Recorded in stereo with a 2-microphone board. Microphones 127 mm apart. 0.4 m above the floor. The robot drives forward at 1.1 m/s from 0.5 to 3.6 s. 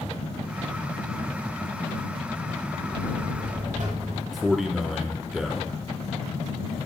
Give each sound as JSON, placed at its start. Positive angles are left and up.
{"t": 2.9, "sound": "a buzzer", "side_deg": -70, "distance_m": 4.0}
{"t": 4.3, "sound": "a man speaking", "side_deg": 0, "distance_m": 0.8}